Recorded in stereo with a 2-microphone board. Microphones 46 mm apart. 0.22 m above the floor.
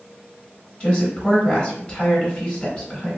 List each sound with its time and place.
0.8 s a woman speaking: 20° left (ahead or behind), 1.1 m